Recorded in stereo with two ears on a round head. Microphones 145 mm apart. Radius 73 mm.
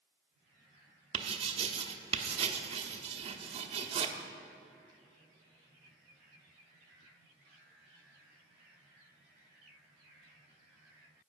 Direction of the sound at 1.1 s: 35° right (ahead or behind).